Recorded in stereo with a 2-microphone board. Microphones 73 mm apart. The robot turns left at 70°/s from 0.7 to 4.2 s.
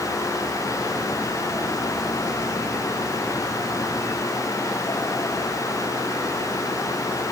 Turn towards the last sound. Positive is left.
No sound to turn to.